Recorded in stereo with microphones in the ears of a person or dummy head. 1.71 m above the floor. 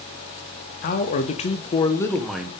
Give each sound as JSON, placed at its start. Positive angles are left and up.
{"t": 0.8, "sound": "a man speaking", "side_deg": 45, "distance_m": 1.2}